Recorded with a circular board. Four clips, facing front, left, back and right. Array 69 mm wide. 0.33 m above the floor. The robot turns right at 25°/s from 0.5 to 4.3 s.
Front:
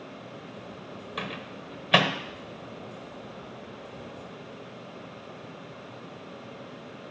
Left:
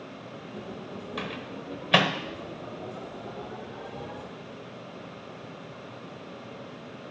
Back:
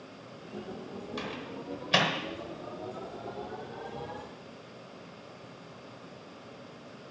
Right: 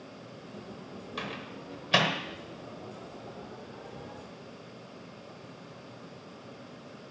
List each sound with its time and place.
1.2 s a microwave: 15° left, 1.1 m; by 2.1 s 40° left, 1.1 m